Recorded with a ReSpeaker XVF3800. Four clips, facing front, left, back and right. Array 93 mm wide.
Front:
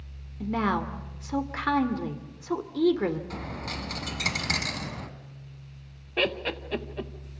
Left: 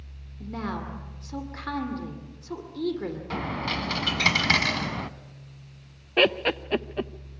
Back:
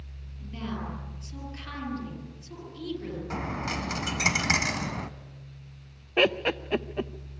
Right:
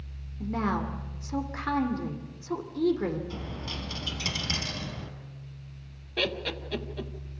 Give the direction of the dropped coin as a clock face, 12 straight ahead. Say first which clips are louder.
Left 8 dB, back 4 dB; 8 o'clock.